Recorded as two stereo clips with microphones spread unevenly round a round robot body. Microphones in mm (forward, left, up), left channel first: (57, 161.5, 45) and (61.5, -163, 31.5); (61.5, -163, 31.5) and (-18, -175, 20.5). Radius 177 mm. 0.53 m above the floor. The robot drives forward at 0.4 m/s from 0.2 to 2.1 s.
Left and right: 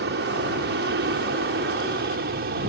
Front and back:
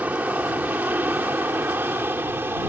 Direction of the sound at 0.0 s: 120° right.